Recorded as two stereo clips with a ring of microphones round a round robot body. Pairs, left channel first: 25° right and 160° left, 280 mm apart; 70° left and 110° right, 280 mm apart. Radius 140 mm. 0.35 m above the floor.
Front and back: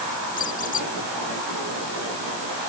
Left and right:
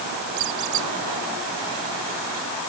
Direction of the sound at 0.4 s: 85° right.